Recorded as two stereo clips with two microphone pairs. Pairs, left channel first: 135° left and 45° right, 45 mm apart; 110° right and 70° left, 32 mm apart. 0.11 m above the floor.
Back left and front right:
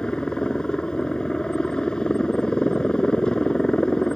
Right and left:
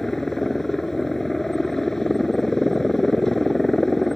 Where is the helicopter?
175° right.